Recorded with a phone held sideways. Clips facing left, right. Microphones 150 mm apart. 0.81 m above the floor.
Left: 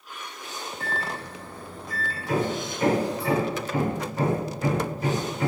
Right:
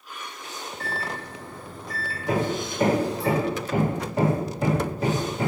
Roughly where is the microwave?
Right.